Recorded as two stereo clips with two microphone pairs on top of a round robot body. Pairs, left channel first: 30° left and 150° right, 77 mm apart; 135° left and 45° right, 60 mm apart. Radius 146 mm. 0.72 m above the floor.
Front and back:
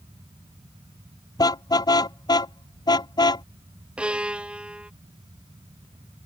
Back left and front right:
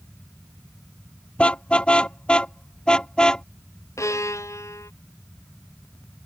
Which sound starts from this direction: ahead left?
A car horn, at 1.4 s.